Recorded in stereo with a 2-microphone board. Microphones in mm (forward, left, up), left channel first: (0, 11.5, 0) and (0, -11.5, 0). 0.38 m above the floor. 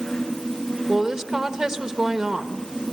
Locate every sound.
0.9 s a woman speaking: 25° right (ahead or behind), 1.0 m